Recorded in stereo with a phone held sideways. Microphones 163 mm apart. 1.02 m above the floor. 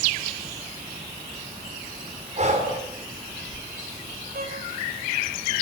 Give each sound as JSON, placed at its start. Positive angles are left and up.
{"t": 2.4, "sound": "breathing", "side_deg": -45, "distance_m": 4.0}
{"t": 4.3, "sound": "a violin", "side_deg": -65, "distance_m": 4.5}